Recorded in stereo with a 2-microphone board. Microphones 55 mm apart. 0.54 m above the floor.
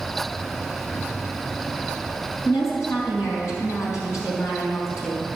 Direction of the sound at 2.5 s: 60° left (ahead or behind).